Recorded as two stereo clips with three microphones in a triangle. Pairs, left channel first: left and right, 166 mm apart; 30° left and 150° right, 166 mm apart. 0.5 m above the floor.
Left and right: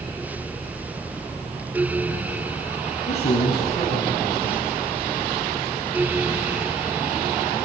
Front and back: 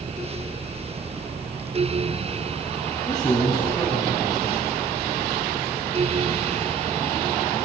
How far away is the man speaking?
About 4.5 m.